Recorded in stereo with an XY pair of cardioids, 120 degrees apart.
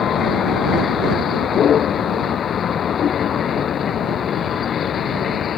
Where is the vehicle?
50° left.